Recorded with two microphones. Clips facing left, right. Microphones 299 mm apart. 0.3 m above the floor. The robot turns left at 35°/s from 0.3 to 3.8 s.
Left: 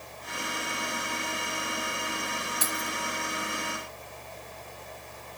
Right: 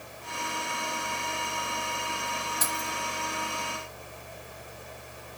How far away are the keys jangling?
About 1.5 m.